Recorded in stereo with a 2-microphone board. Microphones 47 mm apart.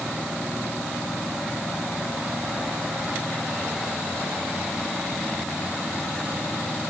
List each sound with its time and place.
Only background noise.